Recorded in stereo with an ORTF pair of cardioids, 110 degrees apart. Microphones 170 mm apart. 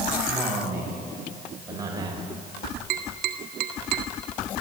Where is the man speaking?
10° right, 6.5 m; by 2.3 s 30° right, 4 m.